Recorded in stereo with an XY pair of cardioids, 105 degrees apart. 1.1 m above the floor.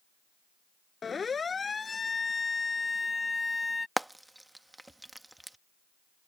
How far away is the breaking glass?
No breaking glass in this recording.